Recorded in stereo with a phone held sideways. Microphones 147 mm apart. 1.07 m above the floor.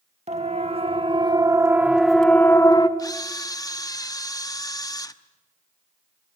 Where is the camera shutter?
25° left (ahead or behind), 0.8 m.